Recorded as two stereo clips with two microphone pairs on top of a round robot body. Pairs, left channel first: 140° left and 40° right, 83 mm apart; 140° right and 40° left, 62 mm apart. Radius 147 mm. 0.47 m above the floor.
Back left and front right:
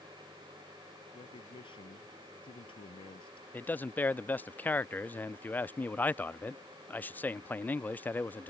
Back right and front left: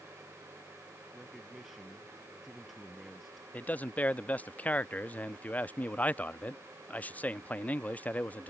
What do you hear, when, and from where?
1.1 s a man speaking: 125° left
3.5 s a man speaking: 165° left